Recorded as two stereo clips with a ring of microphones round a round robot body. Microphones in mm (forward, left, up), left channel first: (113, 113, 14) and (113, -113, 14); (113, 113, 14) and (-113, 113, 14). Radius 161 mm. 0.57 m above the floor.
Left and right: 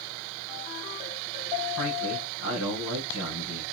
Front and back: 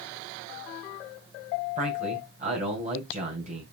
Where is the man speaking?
120° left, 3 m.